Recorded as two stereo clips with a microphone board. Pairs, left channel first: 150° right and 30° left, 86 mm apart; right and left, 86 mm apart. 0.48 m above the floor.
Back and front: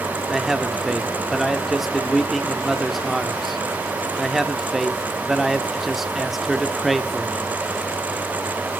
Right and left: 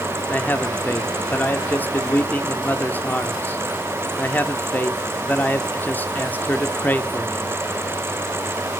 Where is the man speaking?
55° right, 0.9 m.